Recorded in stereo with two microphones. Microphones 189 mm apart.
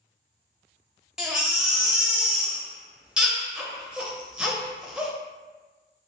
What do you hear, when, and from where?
1.2 s a baby crying: 5° right (ahead or behind), 0.6 m